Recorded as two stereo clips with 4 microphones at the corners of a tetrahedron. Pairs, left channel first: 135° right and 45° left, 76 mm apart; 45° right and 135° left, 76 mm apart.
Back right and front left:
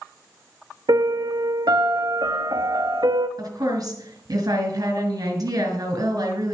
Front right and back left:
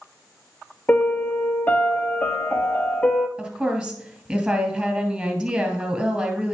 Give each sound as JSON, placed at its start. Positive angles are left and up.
{"t": 0.9, "sound": "a piano", "azimuth_deg": 25, "distance_m": 0.6}
{"t": 3.4, "sound": "a woman speaking", "azimuth_deg": 60, "distance_m": 2.0}